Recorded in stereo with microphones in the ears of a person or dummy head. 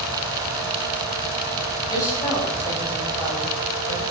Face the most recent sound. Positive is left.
turn(degrees=15)  # may be behind; listen again after turning